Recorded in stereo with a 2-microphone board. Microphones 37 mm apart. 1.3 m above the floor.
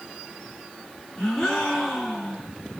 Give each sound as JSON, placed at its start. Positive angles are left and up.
{"t": 1.2, "sound": "a gasp", "side_deg": 10, "distance_m": 1.4}